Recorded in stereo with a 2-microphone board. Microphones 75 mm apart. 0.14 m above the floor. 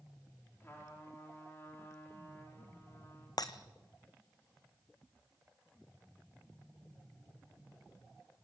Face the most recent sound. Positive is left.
turn(degrees=60)  # may be behind; listen again after turning